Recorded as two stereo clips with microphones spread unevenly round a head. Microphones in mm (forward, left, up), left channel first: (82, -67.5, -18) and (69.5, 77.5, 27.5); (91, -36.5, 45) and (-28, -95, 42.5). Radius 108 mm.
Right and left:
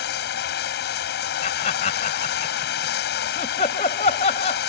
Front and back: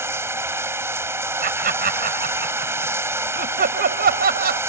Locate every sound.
0.0 s running water: 85° right
1.4 s laughter: 150° right